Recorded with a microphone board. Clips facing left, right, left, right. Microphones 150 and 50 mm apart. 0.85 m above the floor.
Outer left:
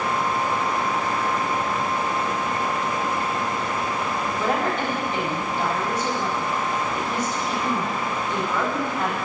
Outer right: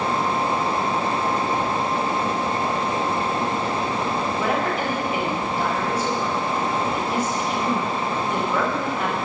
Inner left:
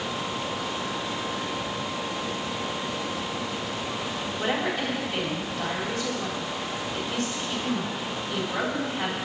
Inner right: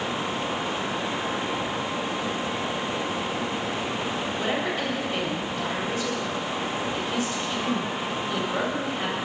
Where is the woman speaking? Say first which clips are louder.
Outer left 2 dB, inner left 2 dB; 10° right (ahead or behind), 4 m.